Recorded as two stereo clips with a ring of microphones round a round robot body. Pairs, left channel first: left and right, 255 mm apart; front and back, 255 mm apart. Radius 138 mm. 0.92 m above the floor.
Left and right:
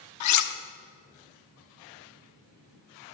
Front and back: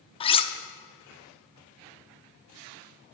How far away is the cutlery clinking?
About 0.9 m.